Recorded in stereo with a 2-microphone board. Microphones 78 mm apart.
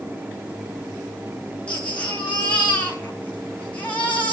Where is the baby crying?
15° left (ahead or behind), 5 m.